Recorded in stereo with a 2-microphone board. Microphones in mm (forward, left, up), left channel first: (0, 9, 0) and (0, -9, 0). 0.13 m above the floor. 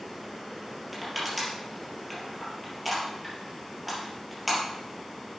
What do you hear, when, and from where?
0.9 s crushing: 5° right (ahead or behind), 4 m